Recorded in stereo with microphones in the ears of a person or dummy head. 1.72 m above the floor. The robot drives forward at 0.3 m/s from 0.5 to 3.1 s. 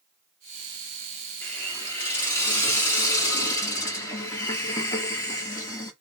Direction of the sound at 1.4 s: 15° left (ahead or behind).